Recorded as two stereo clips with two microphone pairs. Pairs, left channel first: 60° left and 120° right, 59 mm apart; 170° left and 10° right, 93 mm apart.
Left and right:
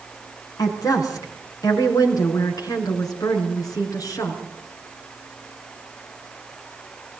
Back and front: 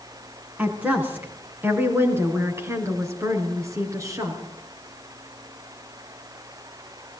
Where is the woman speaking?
60° left, 4.5 m; by 4.4 s 45° left, 6 m.